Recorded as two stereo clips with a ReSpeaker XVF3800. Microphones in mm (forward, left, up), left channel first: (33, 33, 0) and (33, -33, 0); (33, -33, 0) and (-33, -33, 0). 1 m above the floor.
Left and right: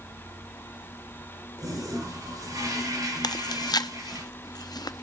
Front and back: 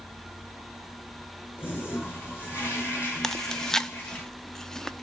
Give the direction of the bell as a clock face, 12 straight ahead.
I don't hear a bell.